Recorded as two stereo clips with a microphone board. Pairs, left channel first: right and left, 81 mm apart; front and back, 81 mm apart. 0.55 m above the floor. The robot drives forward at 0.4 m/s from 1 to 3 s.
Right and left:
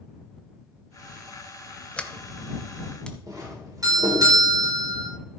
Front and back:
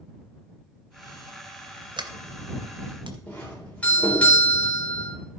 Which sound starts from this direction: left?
A doorbell, at 3.3 s.